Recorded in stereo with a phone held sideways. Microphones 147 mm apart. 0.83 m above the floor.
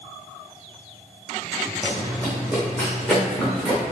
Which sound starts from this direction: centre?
Running footsteps, at 1.8 s.